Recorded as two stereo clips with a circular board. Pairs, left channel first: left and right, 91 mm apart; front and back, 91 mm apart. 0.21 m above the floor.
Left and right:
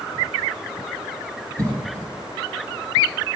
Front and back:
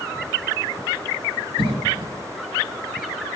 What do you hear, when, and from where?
1.6 s a cough: 145° right, 6 m